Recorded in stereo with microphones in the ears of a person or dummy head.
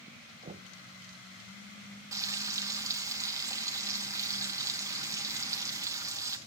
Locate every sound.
0.4 s knocking: 35° right (ahead or behind), 0.6 m
2.1 s frying: 20° right (ahead or behind), 1.2 m